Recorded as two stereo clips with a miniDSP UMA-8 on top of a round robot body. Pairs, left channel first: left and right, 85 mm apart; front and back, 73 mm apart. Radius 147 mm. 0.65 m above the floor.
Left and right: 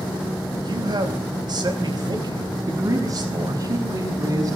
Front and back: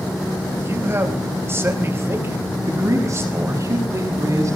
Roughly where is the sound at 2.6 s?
Behind right.